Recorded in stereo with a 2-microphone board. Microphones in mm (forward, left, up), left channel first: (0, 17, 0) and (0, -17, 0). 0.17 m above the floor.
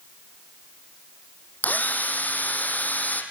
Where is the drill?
55° left (ahead or behind), 3 m.